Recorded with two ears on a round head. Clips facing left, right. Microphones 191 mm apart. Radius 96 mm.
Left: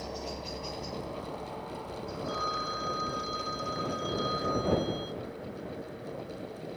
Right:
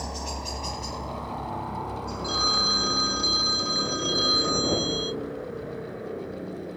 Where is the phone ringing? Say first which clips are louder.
Right 5 dB; 50° right (ahead or behind).